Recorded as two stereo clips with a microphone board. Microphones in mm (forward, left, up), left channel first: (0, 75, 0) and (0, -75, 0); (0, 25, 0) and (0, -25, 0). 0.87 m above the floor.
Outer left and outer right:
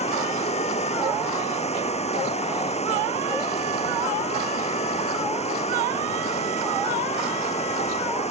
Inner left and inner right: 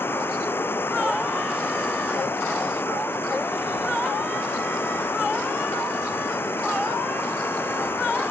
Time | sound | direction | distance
0.0 | running water | 45° left (ahead or behind) | ?